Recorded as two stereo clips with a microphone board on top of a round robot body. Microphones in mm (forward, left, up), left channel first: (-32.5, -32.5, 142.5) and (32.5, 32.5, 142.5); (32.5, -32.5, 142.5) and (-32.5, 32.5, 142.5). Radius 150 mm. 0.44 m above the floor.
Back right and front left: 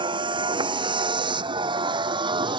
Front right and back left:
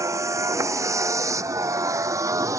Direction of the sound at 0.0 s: 80° left.